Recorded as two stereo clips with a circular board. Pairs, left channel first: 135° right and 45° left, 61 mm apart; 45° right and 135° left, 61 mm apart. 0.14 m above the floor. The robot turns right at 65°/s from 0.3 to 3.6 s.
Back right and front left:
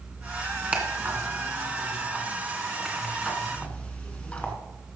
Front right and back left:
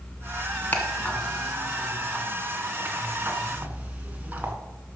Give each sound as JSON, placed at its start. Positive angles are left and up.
{"t": 0.7, "sound": "ticking", "azimuth_deg": -10, "distance_m": 1.6}